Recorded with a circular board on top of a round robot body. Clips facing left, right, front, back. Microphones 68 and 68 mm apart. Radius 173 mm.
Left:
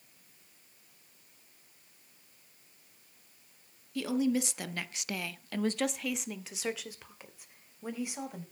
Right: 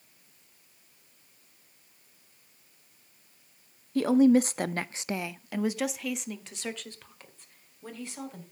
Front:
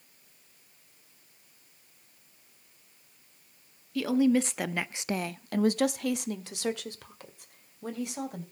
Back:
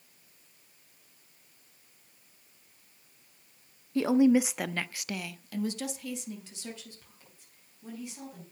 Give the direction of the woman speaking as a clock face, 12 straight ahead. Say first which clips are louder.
Right 9 dB, back 2 dB; 4 o'clock.